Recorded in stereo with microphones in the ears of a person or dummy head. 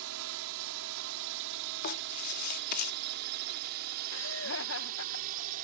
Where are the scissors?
No scissors in this recording.